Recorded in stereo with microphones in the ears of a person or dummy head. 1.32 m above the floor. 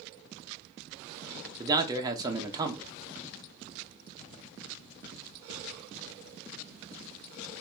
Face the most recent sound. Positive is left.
turn(degrees=-20)  # may be behind; listen again after turning